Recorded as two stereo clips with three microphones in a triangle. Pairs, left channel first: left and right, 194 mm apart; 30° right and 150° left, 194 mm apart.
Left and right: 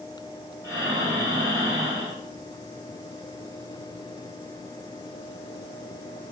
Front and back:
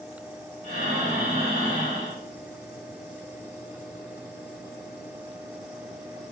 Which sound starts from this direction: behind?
Breathing, at 0.6 s.